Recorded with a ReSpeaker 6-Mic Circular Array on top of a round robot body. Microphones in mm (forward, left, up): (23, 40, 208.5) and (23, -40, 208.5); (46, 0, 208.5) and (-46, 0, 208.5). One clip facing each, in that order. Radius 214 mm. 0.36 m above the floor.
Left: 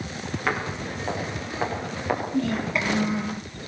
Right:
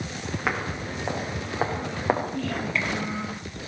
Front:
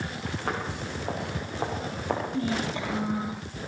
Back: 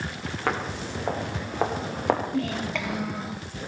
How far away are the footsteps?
About 6.5 m.